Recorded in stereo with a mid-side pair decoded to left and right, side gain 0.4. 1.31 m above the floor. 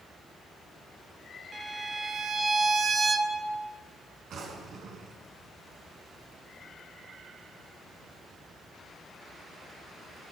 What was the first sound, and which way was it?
A violin, 35° right.